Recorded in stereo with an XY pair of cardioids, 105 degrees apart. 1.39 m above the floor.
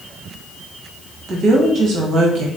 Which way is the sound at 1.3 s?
65° right.